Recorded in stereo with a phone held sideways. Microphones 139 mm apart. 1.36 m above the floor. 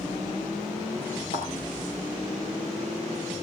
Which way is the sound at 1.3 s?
70° left (ahead or behind).